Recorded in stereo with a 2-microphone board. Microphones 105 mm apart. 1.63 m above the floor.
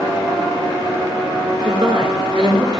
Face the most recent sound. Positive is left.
turn(degrees=-40)  # may be behind; listen again after turning